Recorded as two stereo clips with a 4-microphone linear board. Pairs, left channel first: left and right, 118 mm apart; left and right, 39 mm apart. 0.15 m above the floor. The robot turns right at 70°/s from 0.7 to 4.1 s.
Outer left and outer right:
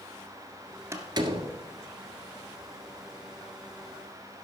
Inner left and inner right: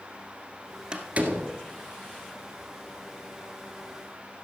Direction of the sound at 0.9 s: 20° right (ahead or behind).